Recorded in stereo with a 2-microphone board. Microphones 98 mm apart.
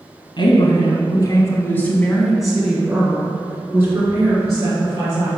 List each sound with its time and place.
0.4 s a woman speaking: 55° left (ahead or behind), 1.8 m; by 5.3 s 35° right (ahead or behind), 3.5 m